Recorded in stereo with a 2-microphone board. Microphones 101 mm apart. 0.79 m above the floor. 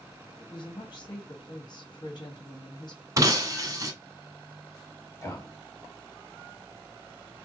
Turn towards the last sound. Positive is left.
turn(degrees=25)  # may be behind; listen again after turning